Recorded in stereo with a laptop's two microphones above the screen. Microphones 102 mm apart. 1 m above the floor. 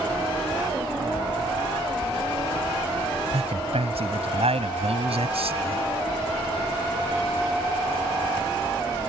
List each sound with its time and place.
3.3 s a man speaking: 85° right; by 5.8 s 75° right (ahead or behind)